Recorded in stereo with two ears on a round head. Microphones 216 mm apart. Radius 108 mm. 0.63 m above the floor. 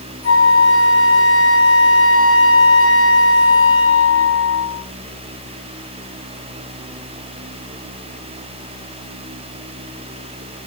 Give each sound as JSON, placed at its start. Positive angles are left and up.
{"t": 0.2, "sound": "a flute", "side_deg": 20, "distance_m": 10.0}